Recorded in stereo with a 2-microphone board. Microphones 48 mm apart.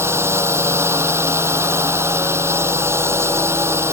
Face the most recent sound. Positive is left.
turn(degrees=-60)  # may be behind; listen again after turning